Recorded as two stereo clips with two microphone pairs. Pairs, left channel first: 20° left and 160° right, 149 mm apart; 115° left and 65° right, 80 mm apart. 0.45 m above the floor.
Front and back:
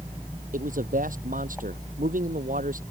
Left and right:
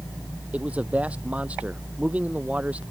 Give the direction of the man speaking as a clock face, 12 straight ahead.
5 o'clock.